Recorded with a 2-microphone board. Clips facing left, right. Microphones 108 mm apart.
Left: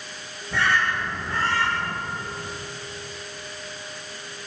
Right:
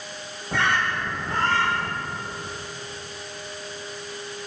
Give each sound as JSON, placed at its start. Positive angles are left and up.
{"t": 0.5, "sound": "a bird", "side_deg": -55, "distance_m": 5.5}